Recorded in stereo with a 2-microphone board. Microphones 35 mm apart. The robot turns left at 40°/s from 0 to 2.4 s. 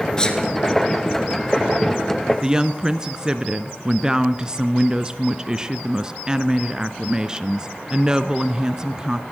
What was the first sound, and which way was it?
A sneeze, 20° left (ahead or behind).